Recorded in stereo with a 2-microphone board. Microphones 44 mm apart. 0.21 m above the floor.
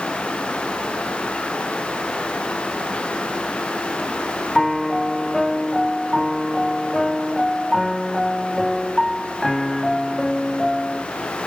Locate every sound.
4.5 s a piano: 5° left (ahead or behind)